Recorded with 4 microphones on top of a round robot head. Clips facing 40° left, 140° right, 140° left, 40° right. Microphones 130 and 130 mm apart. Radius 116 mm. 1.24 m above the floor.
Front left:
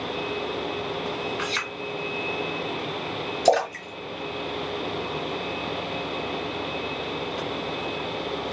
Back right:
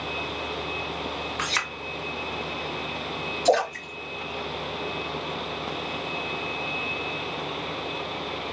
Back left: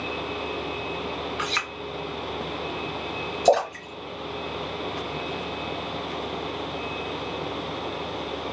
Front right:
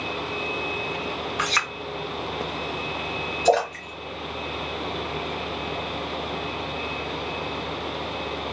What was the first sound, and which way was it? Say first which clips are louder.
A clink: front left 1 dB, front right 3 dB; 90° right.